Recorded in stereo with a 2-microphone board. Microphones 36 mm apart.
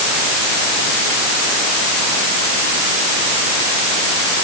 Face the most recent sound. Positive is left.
No sound to turn to.